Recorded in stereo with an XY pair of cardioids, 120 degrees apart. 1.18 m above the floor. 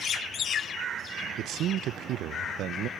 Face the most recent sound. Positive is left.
turn(degrees=-65)